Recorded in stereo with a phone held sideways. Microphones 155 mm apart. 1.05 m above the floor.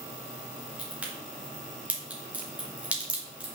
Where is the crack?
10° right (ahead or behind), 2.5 m.